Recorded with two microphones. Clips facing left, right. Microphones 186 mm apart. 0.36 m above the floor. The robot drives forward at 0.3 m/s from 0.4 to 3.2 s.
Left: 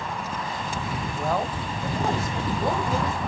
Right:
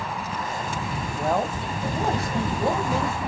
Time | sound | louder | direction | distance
1.2 | a man speaking | right 3 dB | 15° right (ahead or behind) | 1.9 m